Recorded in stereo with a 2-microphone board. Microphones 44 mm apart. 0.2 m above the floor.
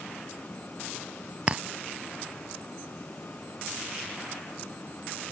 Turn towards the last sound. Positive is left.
turn(degrees=-25)  # may be behind; listen again after turning